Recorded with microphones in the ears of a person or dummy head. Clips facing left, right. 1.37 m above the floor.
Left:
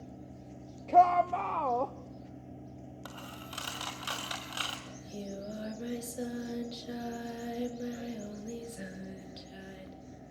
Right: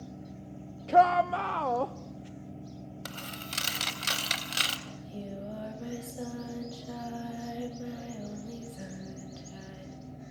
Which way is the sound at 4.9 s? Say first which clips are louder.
Right 1 dB; 30° left (ahead or behind).